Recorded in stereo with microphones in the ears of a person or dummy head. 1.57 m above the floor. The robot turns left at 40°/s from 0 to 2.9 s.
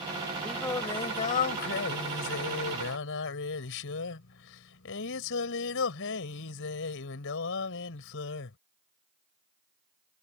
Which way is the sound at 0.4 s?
170° left.